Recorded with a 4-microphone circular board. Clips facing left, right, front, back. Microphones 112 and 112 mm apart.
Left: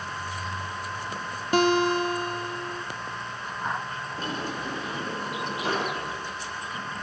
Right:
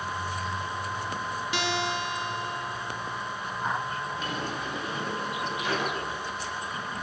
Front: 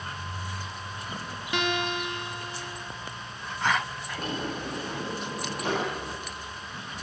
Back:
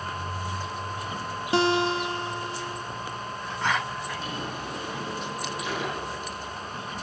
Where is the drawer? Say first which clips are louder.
Left 1 dB, front 1 dB; 40° left, 8 m.